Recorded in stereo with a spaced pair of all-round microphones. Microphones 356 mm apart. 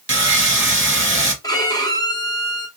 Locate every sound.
0.1 s sawing: 35° right (ahead or behind), 1.0 m
1.4 s a violin: 10° left (ahead or behind), 1.2 m